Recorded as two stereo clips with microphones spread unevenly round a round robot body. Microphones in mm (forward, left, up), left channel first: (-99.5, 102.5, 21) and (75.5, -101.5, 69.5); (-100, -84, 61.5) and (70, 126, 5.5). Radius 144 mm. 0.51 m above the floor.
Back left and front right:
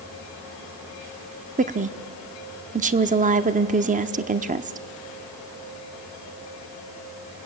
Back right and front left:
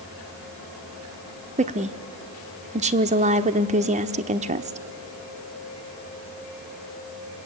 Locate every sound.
1.6 s a woman speaking: 15° left, 0.9 m